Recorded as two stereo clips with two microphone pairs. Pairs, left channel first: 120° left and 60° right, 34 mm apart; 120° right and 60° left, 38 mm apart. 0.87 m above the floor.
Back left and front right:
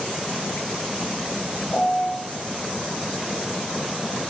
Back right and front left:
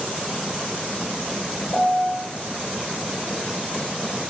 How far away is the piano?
About 1.3 m.